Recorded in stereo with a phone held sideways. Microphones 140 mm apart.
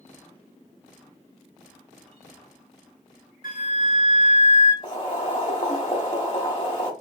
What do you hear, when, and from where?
3.4 s a flute: 70° left (ahead or behind), 1.2 m
4.8 s boiling: 35° left (ahead or behind), 1.3 m